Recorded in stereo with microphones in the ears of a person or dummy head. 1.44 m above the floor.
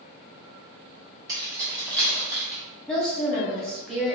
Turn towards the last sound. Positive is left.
turn(degrees=5)  # may be behind; listen again after turning